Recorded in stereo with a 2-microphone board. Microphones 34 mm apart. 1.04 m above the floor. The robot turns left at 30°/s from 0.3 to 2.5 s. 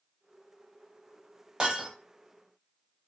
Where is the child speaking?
I don't hear a child speaking.